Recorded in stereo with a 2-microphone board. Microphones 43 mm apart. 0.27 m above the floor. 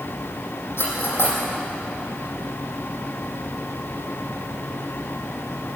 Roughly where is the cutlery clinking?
Left.